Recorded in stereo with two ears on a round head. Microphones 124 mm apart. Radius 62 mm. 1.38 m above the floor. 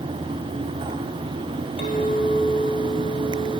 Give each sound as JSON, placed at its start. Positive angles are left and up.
{"t": 1.8, "sound": "a clink", "side_deg": 45, "distance_m": 3.0}